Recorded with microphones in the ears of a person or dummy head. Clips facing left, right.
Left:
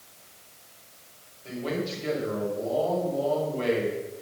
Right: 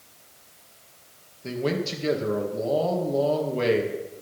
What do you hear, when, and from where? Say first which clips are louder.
1.4 s a man speaking: right 4 dB; 60° right (ahead or behind), 2.5 m